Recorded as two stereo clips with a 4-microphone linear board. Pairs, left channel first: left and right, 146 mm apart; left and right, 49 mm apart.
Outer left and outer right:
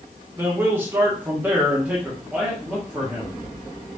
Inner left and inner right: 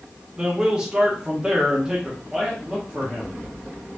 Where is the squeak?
No squeak in this recording.